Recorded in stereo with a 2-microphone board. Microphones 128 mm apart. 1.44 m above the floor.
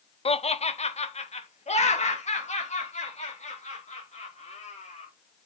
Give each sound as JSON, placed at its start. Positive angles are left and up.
{"t": 0.2, "sound": "laughter", "side_deg": 50, "distance_m": 0.6}